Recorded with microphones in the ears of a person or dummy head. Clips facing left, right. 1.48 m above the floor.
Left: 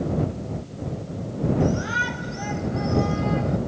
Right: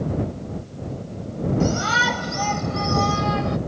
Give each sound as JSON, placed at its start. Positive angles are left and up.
{"t": 1.6, "sound": "a shout", "side_deg": -85}